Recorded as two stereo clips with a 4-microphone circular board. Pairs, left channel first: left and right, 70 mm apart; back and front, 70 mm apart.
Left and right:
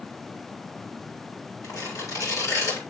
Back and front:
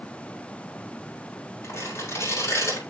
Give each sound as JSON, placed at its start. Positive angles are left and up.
{"t": 1.6, "sound": "tearing paper", "azimuth_deg": 130, "distance_m": 7.5}